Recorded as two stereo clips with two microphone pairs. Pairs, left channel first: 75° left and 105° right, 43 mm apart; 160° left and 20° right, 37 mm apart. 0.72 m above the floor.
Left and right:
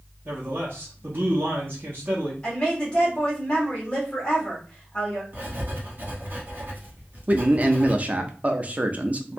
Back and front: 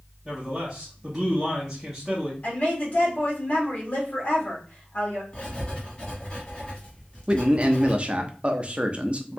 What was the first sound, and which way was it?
A man speaking, 105° right.